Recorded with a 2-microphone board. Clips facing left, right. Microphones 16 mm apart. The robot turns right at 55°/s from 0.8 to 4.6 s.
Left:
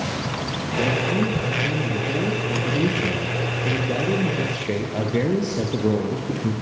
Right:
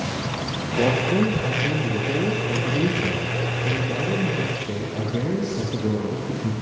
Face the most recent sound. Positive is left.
turn(degrees=100)